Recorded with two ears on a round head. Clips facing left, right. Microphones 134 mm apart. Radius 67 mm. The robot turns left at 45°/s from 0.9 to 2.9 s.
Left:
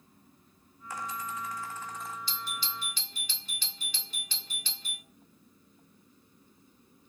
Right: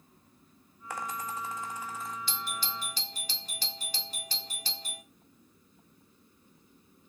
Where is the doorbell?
45° right (ahead or behind), 2.0 m; by 5.0 s 35° right (ahead or behind), 2.0 m.